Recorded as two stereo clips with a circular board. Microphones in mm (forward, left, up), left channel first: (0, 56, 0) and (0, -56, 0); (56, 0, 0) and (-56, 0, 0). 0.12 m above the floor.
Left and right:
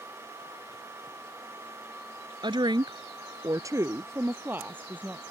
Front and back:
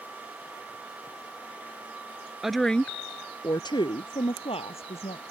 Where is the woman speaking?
95° right; by 5.3 s 15° right.